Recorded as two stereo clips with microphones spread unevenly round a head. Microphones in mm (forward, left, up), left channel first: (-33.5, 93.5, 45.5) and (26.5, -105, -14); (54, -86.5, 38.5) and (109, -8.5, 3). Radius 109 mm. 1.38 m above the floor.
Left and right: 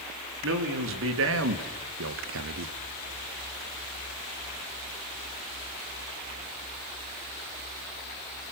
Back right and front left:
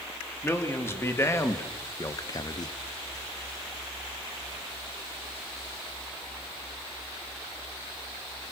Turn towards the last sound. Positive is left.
turn(degrees=-80)